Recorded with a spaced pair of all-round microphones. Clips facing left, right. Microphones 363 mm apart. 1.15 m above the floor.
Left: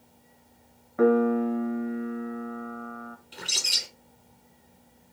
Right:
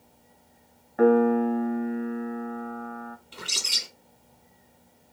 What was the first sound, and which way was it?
A piano, 5° left (ahead or behind).